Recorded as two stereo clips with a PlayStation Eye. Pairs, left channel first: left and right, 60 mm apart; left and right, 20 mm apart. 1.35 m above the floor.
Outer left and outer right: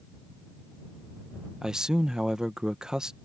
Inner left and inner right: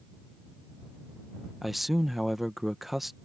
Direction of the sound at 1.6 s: 10° right (ahead or behind).